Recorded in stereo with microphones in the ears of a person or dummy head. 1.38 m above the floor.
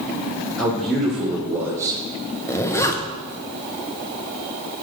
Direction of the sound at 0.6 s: 10° left (ahead or behind).